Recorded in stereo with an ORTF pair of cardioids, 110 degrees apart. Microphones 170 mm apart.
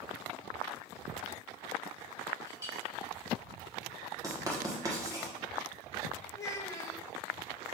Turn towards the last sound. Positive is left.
turn(degrees=20)